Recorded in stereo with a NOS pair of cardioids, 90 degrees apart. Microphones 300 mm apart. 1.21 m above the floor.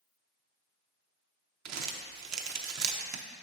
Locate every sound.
1.6 s crumpling: 60° right, 0.7 m